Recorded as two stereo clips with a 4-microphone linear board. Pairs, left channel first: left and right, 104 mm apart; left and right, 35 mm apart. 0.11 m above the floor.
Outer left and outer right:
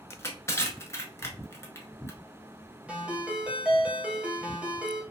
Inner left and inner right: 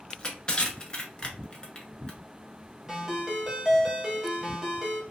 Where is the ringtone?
10° right (ahead or behind), 1.1 m.